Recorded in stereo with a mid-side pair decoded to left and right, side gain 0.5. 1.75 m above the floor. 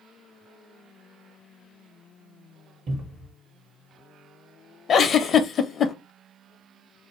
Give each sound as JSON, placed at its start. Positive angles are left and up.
{"t": 2.9, "sound": "a cupboard door", "azimuth_deg": -40, "distance_m": 1.1}
{"t": 4.9, "sound": "a giggle", "azimuth_deg": 50, "distance_m": 0.5}